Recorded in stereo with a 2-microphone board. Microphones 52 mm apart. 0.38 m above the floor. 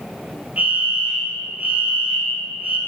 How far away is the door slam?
No door slam in this recording.